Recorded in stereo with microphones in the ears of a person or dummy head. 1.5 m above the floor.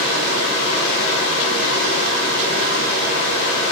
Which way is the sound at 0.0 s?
35° left (ahead or behind).